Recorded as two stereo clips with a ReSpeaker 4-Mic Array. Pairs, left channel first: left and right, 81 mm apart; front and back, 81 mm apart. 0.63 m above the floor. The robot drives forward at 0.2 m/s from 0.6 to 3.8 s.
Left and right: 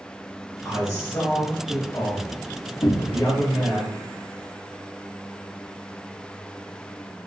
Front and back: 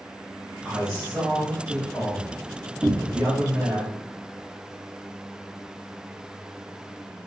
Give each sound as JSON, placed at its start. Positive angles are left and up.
{"t": 0.7, "sound": "a man speaking", "azimuth_deg": 95, "distance_m": 0.9}
{"t": 2.8, "sound": "a cupboard door", "azimuth_deg": 115, "distance_m": 0.5}